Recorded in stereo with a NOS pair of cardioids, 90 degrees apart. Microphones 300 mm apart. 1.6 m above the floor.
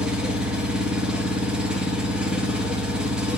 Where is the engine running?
5° right, 1.0 m.